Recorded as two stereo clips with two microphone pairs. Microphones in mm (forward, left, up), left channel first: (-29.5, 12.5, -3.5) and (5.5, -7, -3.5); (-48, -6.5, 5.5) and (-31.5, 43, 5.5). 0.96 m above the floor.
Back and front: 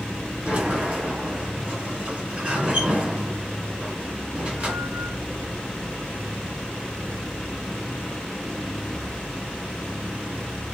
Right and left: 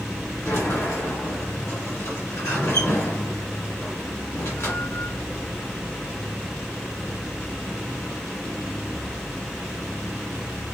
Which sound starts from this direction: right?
A sliding door, at 0.5 s.